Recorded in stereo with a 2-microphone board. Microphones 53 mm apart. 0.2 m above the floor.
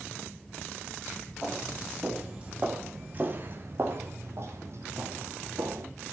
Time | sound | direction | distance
1.4 | footsteps | 5° right (ahead or behind) | 4.5 m